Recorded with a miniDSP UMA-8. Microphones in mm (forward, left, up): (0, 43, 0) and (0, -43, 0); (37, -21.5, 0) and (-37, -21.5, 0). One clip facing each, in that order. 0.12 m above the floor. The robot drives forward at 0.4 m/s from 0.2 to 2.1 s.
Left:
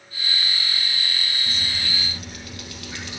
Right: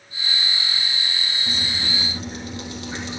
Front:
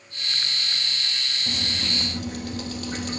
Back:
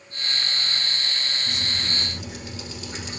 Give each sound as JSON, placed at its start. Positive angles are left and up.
{"t": 1.5, "sound": "dripping", "azimuth_deg": -25, "distance_m": 3.5}